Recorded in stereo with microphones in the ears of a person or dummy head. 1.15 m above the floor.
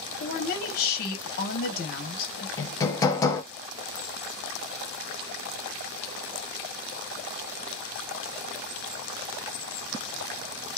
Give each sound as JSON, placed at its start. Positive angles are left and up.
{"t": 0.2, "sound": "a woman speaking", "side_deg": 45, "distance_m": 0.9}
{"t": 2.6, "sound": "hammering", "side_deg": 20, "distance_m": 0.5}